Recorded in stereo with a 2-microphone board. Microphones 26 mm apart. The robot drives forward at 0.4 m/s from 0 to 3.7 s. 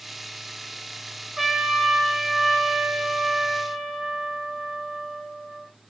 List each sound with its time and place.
1.4 s a trumpet: 15° right (ahead or behind), 3 m; by 5.7 s 10° right (ahead or behind), 3.5 m